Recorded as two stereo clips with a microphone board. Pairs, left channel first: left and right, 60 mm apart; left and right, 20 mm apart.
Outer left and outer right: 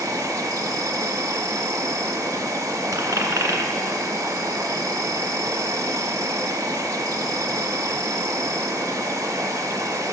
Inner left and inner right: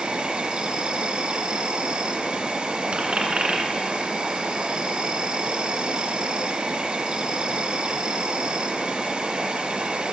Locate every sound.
0.0 s an insect: 70° right (ahead or behind), 0.8 m
2.9 s a dropped coin: 70° right (ahead or behind), 1.4 m